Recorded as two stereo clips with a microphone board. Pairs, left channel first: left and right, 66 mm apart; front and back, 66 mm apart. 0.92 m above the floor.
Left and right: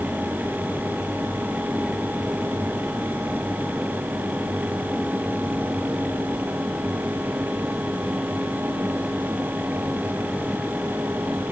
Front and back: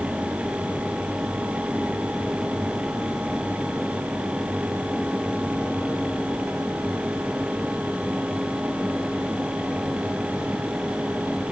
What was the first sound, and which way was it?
Only background noise.